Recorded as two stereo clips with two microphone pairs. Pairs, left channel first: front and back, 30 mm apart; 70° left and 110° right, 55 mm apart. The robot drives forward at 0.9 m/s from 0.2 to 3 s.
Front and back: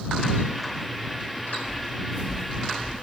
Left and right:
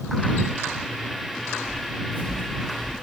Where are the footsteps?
115° left, 6.5 m.